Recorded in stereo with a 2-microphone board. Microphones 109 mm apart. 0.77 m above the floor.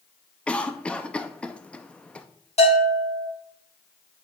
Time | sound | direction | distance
0.5 | a cough | 10° left (ahead or behind) | 0.6 m
2.6 | a bell | 75° left (ahead or behind) | 3.5 m